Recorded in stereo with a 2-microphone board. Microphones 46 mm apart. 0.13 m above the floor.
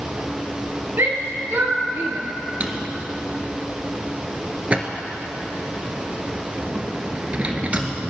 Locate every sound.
1.0 s a shout: 60° right (ahead or behind), 2.5 m
2.6 s a drawer: 30° right (ahead or behind), 1.3 m